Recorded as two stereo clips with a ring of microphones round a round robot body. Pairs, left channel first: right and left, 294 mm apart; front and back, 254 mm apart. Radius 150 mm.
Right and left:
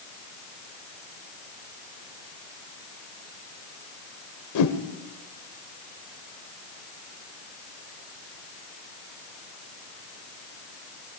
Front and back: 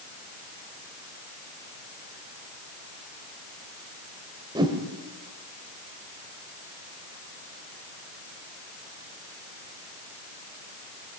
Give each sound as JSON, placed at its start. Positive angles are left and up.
{"t": 4.5, "sound": "a whoosh", "azimuth_deg": -105, "distance_m": 1.7}